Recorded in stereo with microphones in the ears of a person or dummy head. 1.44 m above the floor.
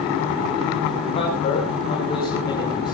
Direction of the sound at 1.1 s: 30° left (ahead or behind).